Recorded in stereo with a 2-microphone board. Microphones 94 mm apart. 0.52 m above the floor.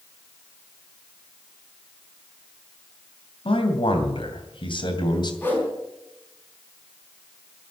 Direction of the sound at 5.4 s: 25° left (ahead or behind).